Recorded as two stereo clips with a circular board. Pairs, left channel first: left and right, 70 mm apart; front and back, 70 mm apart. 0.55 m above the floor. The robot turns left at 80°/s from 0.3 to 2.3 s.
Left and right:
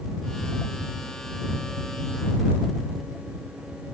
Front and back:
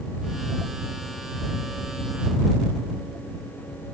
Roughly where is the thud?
No thud in this recording.